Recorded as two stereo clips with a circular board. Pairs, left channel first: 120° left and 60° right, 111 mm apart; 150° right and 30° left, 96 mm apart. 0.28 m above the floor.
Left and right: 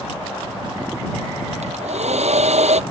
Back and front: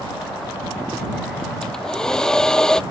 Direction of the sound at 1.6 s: 65° right.